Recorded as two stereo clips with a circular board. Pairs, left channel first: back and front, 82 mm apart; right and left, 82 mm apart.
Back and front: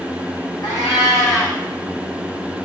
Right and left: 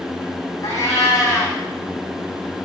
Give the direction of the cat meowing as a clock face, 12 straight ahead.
5 o'clock.